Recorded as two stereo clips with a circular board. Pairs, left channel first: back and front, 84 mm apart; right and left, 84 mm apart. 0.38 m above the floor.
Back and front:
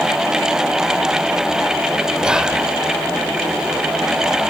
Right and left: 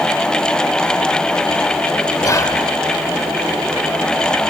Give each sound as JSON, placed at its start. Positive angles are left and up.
{"t": 2.2, "sound": "whispering", "azimuth_deg": -75, "distance_m": 1.5}